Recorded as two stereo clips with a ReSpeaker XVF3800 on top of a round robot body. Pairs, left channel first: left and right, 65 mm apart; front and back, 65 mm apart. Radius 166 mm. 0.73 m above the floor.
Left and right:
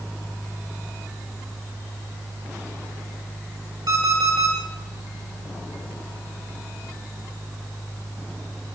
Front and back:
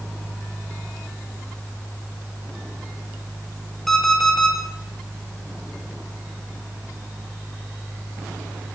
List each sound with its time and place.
3.9 s an alarm clock: 85° right, 7 m